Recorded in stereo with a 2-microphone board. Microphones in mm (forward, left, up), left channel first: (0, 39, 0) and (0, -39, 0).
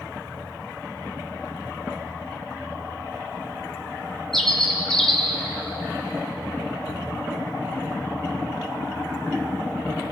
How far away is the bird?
About 2 m.